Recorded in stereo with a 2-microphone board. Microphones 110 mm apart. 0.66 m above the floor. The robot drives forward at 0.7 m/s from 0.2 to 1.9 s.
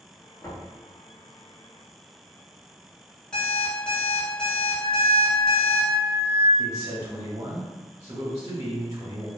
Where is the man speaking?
35° right (ahead or behind), 0.6 m.